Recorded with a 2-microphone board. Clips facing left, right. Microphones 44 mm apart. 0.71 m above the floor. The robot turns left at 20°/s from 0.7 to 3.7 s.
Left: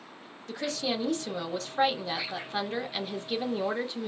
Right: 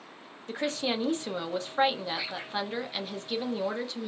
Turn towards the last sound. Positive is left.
turn(degrees=160)